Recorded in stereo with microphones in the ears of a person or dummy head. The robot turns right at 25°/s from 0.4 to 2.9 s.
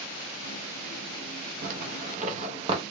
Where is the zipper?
60° right (ahead or behind), 1.0 m; by 2.8 s 35° right (ahead or behind), 1.0 m.